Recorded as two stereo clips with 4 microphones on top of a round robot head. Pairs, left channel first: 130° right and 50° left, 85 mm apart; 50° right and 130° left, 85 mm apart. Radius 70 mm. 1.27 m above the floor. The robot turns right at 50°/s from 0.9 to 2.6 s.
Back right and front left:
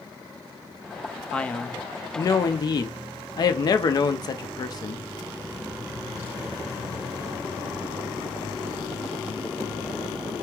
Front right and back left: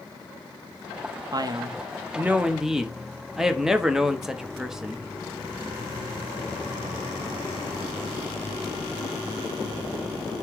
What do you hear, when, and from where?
1.3 s a man speaking: 150° left, 0.7 m; by 5.1 s 145° right, 0.7 m